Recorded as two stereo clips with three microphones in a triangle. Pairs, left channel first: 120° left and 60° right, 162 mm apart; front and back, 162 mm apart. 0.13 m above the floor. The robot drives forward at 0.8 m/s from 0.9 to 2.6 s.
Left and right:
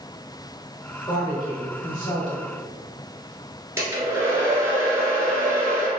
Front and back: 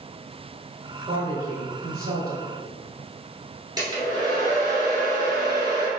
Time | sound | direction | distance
1.1 | a woman speaking | 165° left | 1.3 m
3.8 | a hair dryer | 125° right | 1.5 m